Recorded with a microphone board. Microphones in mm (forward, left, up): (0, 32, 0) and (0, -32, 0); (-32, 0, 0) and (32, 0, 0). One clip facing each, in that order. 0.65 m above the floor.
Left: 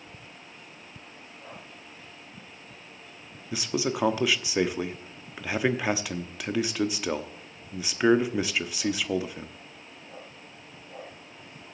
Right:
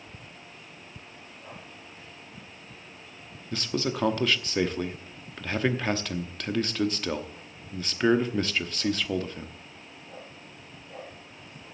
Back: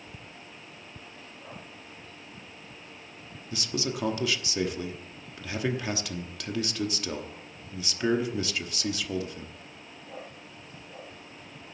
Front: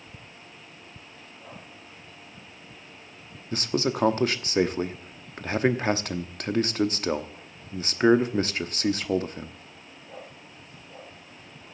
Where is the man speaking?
15° left, 0.9 m.